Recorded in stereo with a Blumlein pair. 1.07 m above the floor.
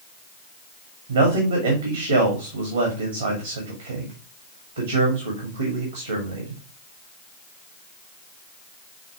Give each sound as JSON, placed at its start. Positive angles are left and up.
{"t": 1.1, "sound": "a man speaking", "azimuth_deg": -70, "distance_m": 2.0}